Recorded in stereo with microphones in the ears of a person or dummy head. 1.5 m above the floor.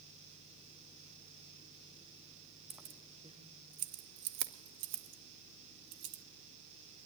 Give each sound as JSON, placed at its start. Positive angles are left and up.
{"t": 2.7, "sound": "keys jangling", "side_deg": 0, "distance_m": 0.9}